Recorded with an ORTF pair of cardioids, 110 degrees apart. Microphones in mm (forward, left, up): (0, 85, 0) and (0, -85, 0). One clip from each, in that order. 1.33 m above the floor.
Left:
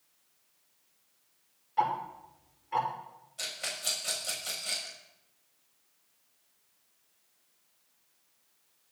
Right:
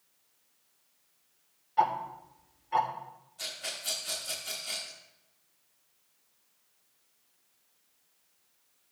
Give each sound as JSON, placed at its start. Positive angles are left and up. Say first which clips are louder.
{"t": 1.8, "sound": "ticking", "louder": "right 2 dB", "azimuth_deg": -5, "distance_m": 3.0}
{"t": 3.4, "sound": "a rattle", "louder": "left 2 dB", "azimuth_deg": 55, "distance_m": 7.0}